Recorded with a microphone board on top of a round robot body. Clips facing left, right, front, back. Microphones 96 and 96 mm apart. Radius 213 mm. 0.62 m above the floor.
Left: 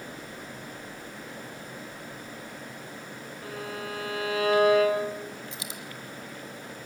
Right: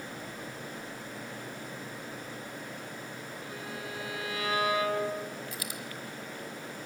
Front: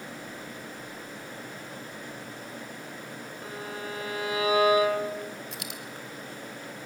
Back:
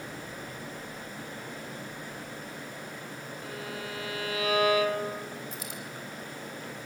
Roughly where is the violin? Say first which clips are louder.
Left 7 dB, front 2 dB; ahead left.